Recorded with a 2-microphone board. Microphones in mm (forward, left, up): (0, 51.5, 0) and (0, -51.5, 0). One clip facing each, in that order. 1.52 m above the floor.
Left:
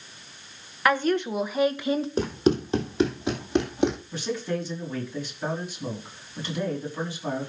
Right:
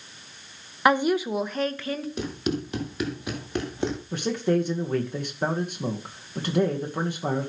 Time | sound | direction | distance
0.8 | a woman speaking | 20° right (ahead or behind) | 1.1 m
2.2 | running footsteps | 35° left (ahead or behind) | 2.5 m
4.1 | a man speaking | 50° right (ahead or behind) | 2.0 m